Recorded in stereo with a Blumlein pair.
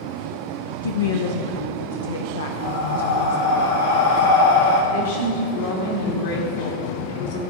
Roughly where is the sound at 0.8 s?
Left.